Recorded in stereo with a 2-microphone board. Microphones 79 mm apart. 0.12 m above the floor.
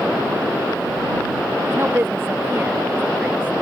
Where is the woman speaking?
30° right (ahead or behind); by 3.5 s 20° right (ahead or behind).